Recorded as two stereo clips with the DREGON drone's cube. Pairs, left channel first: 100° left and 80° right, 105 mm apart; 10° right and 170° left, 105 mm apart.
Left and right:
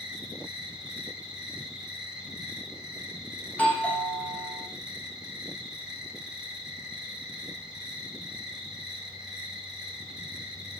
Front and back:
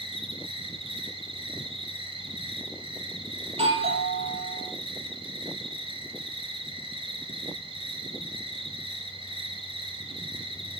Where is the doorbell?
Straight behind, 6.5 m.